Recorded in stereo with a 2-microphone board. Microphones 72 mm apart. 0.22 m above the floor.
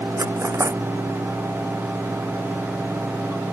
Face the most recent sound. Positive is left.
turn(degrees=-40)  # may be behind; listen again after turning